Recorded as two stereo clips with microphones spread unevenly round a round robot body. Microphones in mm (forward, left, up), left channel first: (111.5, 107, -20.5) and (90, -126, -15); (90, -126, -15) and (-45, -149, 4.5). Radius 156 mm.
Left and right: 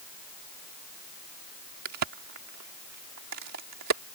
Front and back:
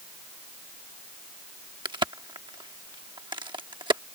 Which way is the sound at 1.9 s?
115° right.